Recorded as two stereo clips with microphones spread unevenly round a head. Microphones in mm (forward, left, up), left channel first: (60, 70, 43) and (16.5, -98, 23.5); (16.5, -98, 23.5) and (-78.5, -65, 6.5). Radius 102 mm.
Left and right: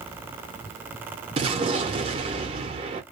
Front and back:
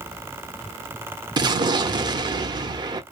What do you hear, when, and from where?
1.4 s an explosion: 165° right, 0.6 m